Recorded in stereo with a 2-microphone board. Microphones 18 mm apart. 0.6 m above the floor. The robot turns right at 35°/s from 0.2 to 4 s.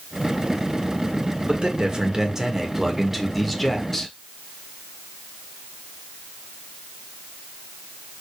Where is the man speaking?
70° right, 1.9 m; by 4.1 s 20° left, 1.9 m.